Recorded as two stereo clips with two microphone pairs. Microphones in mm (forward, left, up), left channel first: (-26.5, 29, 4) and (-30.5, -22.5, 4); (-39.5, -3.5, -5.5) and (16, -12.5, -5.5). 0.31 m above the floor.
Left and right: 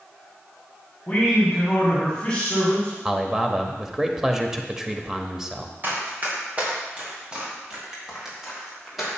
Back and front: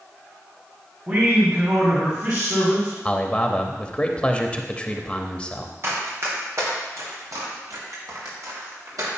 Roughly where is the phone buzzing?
I don't hear a phone buzzing.